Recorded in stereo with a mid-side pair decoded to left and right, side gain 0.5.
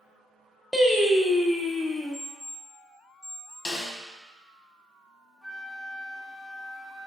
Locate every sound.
0.7 s singing: 10° left, 0.6 m
2.1 s an alarm clock: 15° right, 1.4 m
3.6 s a snare drum: 30° left, 1.2 m
5.4 s a flute: 5° left, 0.7 m